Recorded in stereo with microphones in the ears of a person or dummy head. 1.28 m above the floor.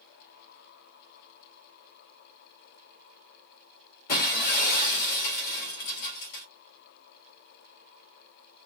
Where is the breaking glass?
50° left (ahead or behind), 2 m.